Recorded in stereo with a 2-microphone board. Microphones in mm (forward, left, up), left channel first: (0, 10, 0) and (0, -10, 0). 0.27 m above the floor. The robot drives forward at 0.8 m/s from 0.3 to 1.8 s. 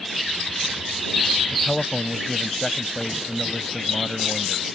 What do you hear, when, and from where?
1.5 s a man speaking: 35° left (ahead or behind)